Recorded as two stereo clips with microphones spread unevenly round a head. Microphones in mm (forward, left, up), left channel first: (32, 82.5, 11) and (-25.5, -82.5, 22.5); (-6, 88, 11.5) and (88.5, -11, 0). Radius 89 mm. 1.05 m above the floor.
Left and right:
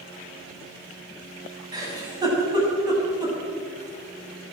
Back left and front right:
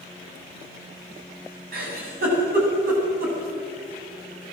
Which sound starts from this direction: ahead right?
A giggle, at 1.7 s.